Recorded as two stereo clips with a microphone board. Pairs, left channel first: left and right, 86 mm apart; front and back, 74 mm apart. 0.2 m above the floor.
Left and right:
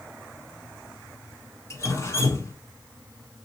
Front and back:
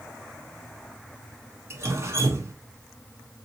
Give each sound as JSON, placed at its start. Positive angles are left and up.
{"t": 1.7, "sound": "dripping", "azimuth_deg": 135, "distance_m": 1.0}